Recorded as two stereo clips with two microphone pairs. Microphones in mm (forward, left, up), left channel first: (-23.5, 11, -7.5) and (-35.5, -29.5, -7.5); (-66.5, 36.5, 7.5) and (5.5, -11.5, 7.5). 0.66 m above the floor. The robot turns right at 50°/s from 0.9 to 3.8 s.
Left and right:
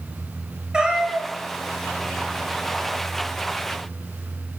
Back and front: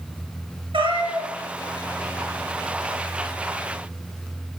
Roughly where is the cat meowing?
Ahead right.